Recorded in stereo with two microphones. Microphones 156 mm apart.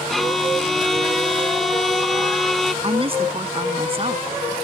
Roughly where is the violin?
Centre.